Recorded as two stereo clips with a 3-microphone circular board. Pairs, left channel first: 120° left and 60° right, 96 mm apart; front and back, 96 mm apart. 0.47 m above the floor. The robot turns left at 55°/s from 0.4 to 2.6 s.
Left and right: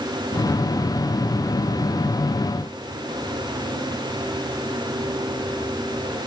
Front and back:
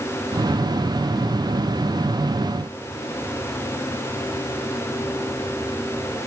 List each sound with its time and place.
Only background noise.